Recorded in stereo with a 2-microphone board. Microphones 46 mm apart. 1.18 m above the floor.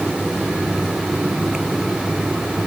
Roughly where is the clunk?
No clunk in this recording.